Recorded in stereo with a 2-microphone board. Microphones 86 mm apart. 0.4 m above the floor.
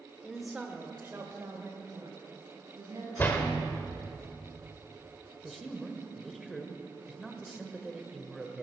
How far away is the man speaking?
About 1.3 m.